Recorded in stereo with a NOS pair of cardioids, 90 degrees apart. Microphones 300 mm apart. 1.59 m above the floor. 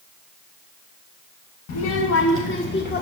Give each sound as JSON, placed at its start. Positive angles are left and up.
{"t": 1.7, "sound": "a child speaking", "azimuth_deg": 60, "distance_m": 1.5}